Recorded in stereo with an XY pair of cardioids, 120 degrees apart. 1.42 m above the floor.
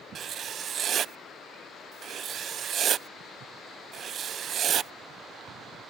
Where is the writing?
50° right.